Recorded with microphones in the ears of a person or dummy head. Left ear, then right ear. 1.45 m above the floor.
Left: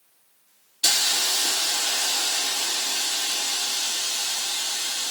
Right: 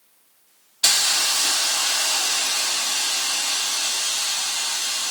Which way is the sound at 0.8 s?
20° right (ahead or behind).